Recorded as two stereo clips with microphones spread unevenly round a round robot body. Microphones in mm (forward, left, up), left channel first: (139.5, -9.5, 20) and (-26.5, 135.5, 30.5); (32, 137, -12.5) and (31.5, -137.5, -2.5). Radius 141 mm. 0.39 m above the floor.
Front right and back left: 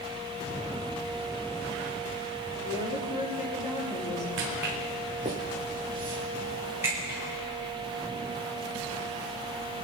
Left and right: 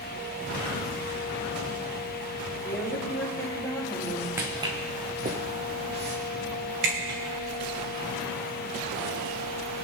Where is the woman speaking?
10° left, 6 m.